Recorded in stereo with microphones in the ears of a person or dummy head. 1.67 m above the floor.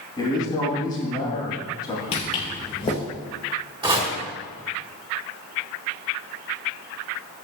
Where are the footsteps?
30° left (ahead or behind), 2 m.